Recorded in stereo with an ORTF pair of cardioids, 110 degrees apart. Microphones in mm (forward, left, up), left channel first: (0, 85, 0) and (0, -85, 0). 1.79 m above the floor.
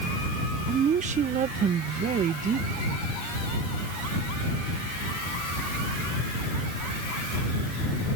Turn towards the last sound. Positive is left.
turn(degrees=-50)